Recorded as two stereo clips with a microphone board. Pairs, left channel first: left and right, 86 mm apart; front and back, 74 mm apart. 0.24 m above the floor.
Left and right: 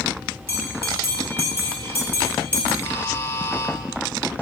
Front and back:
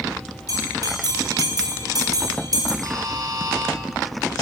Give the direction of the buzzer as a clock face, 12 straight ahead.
7 o'clock.